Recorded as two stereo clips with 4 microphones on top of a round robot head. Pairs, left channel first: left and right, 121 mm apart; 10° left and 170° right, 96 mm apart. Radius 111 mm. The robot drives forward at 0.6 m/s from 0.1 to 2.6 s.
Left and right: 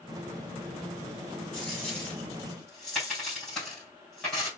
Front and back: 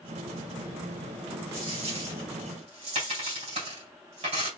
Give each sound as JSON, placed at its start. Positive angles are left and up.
{"t": 1.5, "sound": "a dropped coin", "azimuth_deg": 175, "distance_m": 3.0}